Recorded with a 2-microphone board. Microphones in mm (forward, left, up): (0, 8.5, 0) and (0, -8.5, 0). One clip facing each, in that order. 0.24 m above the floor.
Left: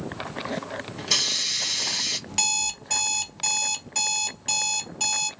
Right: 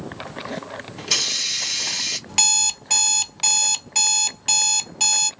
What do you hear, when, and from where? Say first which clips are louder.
1.0 s a hiss: right 2 dB; 5° right (ahead or behind), 1.0 m
2.3 s an alarm clock: right 5 dB; 25° right (ahead or behind), 0.5 m